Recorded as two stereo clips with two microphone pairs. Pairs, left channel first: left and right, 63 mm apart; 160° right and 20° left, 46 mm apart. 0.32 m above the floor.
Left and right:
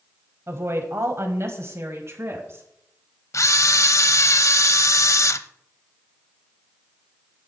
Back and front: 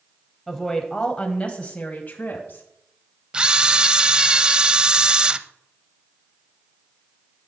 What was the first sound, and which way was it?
A woman speaking, 70° right.